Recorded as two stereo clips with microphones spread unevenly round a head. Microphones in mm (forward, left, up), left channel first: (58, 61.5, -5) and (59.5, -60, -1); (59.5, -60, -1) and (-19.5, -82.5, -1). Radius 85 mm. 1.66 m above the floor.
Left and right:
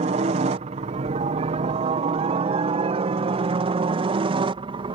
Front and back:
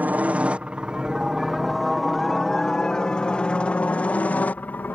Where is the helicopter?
100° right; by 5.0 s 50° right.